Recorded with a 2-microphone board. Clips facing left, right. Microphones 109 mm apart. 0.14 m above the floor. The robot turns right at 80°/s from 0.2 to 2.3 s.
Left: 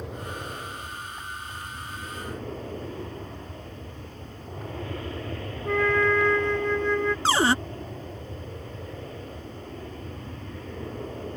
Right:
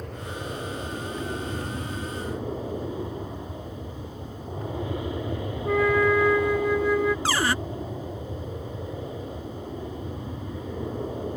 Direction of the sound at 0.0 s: 175° left.